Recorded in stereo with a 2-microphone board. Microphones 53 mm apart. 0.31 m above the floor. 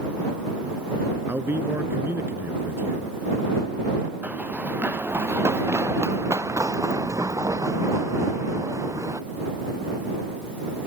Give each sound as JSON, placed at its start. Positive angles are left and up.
{"t": 1.3, "sound": "a man speaking", "side_deg": -45}
{"t": 4.2, "sound": "running footsteps", "side_deg": -30}